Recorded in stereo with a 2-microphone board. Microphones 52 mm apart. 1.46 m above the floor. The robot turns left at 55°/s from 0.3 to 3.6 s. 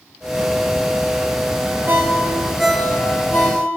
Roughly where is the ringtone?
Right.